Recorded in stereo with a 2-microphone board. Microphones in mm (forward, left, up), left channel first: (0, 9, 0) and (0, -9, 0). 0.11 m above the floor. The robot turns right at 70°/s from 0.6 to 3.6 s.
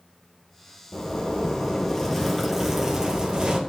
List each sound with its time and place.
0.9 s a zipper: 75° left, 2.5 m; by 3.6 s 100° right, 2.5 m